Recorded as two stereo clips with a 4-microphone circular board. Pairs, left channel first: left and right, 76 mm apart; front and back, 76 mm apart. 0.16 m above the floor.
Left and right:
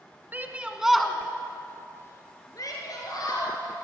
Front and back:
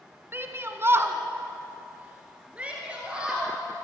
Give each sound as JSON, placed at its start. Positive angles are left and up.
{"t": 0.3, "sound": "a shout", "azimuth_deg": -140, "distance_m": 2.0}